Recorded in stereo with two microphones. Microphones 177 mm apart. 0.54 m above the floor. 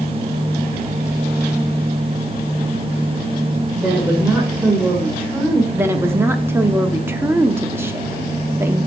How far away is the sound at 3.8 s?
About 1.8 m.